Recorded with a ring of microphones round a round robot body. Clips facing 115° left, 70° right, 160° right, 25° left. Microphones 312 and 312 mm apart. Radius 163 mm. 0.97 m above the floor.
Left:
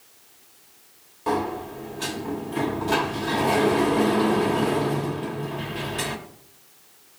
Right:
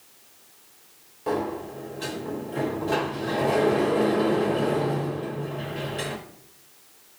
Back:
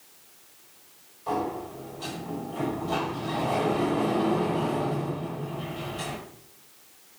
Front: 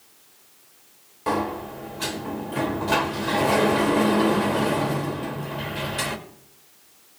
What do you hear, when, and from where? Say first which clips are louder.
1.3 s a sliding door: left 1 dB, front 4 dB; 40° left, 1.4 m